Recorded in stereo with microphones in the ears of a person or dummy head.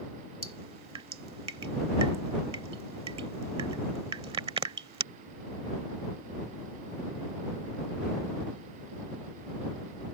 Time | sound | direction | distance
0.4 | dripping | 30° right (ahead or behind) | ?